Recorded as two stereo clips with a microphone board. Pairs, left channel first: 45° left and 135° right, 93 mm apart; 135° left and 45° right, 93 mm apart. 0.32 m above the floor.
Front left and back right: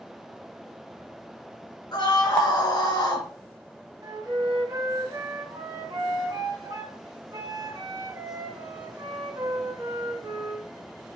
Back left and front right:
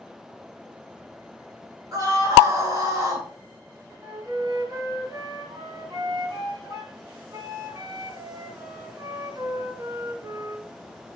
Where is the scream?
5° left, 4.5 m.